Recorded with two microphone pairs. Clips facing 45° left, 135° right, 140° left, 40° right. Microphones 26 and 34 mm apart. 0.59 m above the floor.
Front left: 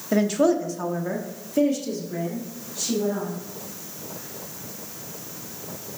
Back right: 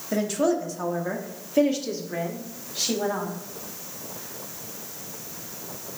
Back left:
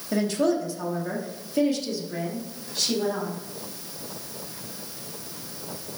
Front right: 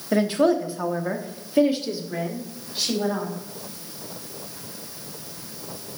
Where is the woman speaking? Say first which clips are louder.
Front left 4 dB, front right 4 dB; 5° right, 1.1 m; by 3.3 s 110° right, 1.6 m.